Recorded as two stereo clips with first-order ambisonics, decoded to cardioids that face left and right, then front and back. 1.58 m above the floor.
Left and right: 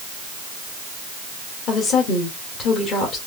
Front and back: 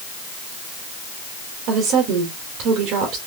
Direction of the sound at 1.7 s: 145° left.